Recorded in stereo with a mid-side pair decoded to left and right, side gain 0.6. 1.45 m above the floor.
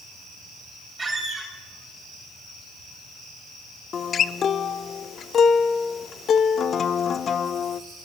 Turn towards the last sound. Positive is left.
turn(degrees=40)